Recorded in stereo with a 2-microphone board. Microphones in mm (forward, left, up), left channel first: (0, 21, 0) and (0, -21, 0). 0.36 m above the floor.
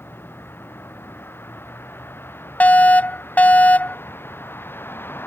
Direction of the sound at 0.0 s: 60° left (ahead or behind).